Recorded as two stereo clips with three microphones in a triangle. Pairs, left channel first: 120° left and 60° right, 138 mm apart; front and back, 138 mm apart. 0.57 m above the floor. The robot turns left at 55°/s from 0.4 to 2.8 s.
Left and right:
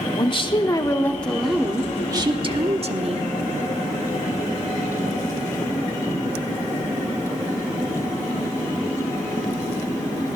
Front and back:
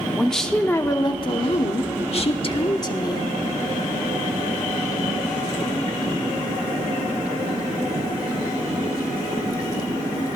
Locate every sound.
0.1 s a woman speaking: 85° left, 1.0 m; by 3.3 s 45° right, 1.0 m